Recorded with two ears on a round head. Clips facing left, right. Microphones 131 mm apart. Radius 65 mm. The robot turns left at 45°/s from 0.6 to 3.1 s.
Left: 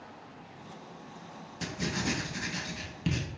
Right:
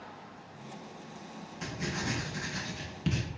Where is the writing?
40° left (ahead or behind), 0.6 m; by 3.2 s centre (ahead or behind), 0.6 m.